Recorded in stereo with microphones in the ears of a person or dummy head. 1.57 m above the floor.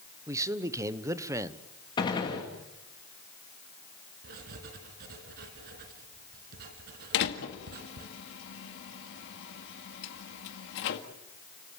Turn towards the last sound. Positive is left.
turn(degrees=60)  # may be behind; listen again after turning